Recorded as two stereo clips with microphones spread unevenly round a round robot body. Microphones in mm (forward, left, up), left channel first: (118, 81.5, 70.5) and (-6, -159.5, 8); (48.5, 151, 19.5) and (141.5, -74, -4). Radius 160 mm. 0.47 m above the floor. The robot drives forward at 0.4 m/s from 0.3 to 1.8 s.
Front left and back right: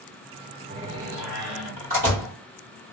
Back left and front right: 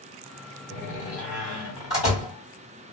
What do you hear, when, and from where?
0.7 s a door slam: 170° right, 1.9 m; by 2.4 s 175° right, 2.5 m